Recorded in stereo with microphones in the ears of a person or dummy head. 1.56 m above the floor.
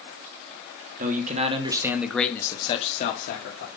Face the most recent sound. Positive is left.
turn(degrees=65)  # may be behind; listen again after turning